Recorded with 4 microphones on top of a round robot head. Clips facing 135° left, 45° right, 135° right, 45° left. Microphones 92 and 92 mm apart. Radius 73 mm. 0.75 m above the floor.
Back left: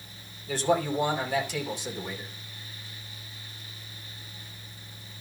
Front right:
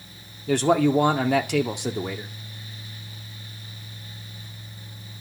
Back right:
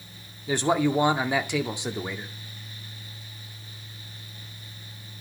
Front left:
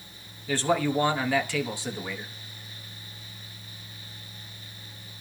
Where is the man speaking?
65° right, 1.9 m.